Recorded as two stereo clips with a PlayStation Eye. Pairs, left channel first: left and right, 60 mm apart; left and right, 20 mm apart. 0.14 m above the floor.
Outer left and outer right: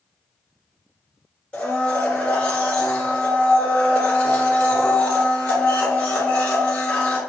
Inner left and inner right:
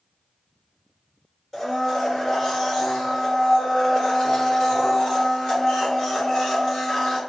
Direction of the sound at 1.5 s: 25° left (ahead or behind).